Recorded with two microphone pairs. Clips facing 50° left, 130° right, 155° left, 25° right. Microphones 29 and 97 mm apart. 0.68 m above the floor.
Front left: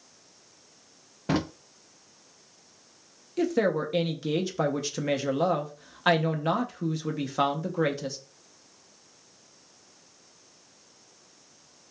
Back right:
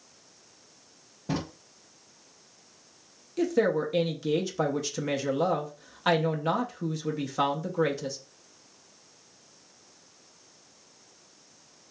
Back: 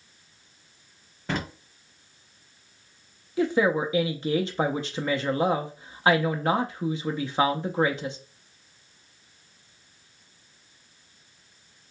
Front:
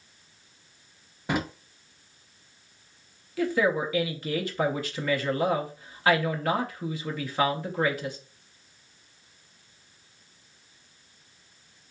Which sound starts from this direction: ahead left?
A drawer, at 1.3 s.